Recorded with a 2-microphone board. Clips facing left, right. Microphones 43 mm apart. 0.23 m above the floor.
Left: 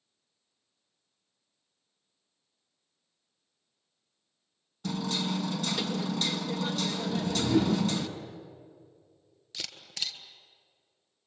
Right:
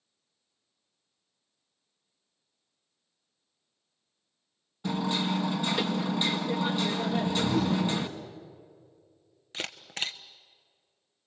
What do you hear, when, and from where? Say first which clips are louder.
4.8 s hammering: right 3 dB; 20° right (ahead or behind), 1.7 m
7.1 s a whoosh: left 3 dB; 35° left (ahead or behind), 4.5 m
9.5 s a camera shutter: right 4 dB; 35° right (ahead or behind), 1.1 m